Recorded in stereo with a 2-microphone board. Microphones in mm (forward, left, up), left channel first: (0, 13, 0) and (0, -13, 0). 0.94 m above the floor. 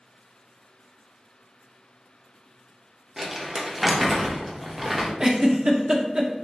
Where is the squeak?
No squeak in this recording.